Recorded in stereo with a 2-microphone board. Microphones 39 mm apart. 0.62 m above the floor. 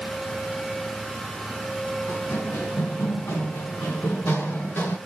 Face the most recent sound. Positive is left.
turn(degrees=60)  # may be behind; listen again after turning